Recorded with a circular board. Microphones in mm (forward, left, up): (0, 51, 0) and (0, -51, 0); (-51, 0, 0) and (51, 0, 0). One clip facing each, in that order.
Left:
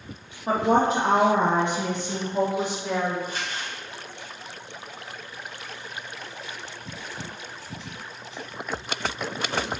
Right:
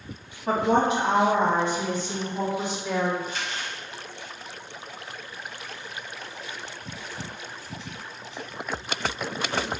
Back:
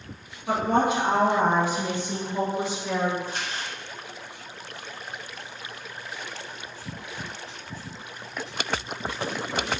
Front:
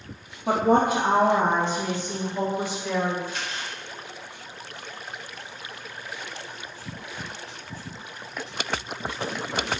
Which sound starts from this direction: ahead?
A woman speaking, at 0.5 s.